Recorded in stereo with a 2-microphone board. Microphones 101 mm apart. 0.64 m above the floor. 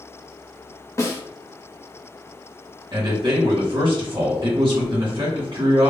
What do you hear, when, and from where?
1.0 s a snare drum: 30° left (ahead or behind), 0.7 m
2.9 s a man speaking: 55° right (ahead or behind), 1.5 m